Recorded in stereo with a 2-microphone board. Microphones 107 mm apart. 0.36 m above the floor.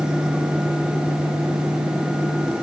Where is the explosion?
No explosion in this recording.